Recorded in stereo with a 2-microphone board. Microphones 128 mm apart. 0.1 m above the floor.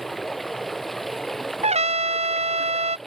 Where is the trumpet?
55° right (ahead or behind).